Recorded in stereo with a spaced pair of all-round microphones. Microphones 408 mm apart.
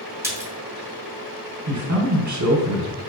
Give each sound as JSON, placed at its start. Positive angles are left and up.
{"t": 0.2, "sound": "a splash", "side_deg": -5, "distance_m": 0.6}
{"t": 1.7, "sound": "a man speaking", "side_deg": -45, "distance_m": 0.7}